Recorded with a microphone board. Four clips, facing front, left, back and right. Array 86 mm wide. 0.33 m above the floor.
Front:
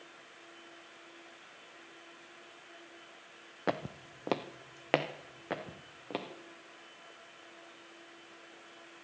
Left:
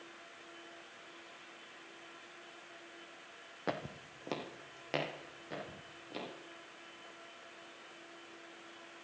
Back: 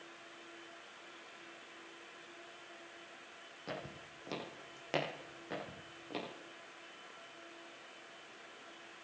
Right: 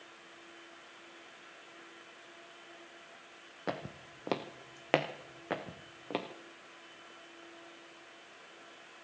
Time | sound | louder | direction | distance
3.7 | footsteps | even, front 10 dB | straight ahead | 0.8 m